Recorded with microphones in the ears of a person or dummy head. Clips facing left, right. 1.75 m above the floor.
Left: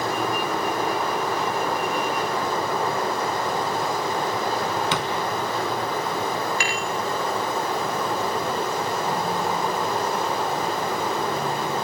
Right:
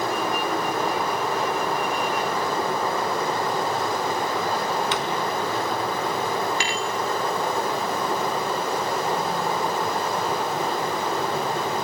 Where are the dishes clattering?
20° right (ahead or behind), 2.5 m.